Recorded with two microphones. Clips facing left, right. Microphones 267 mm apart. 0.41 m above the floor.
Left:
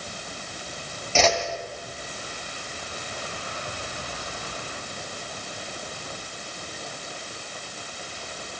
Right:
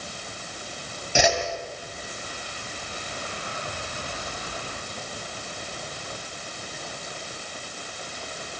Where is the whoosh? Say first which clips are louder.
Even; 15° right (ahead or behind), 2.5 m.